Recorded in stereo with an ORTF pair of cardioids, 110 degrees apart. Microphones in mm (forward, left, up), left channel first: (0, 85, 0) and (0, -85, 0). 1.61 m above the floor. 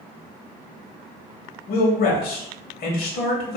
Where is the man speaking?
60° left, 1.1 m.